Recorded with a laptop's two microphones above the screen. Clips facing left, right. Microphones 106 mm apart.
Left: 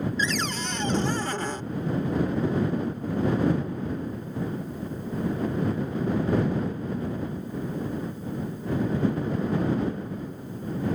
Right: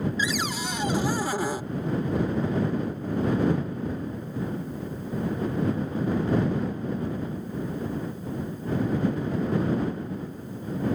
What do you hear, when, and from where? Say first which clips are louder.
0.2 s a cupboard door: even; 10° right (ahead or behind)